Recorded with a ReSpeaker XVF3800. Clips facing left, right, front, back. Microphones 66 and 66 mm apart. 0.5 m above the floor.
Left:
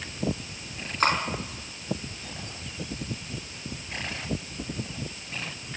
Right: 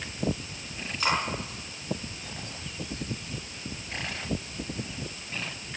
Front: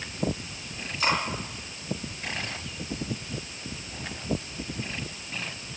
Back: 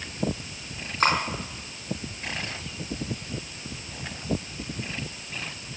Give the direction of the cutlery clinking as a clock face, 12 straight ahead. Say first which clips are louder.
Left 3 dB, back 3 dB; 7 o'clock.